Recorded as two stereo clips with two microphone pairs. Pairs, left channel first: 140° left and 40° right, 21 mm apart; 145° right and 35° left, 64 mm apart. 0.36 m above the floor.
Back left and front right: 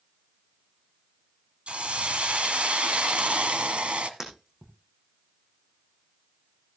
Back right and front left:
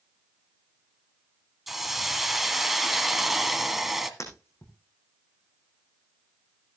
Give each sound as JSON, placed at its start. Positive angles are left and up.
{"t": 1.7, "sound": "a hiss", "azimuth_deg": -55, "distance_m": 1.4}
{"t": 4.2, "sound": "breaking glass", "azimuth_deg": -105, "distance_m": 4.5}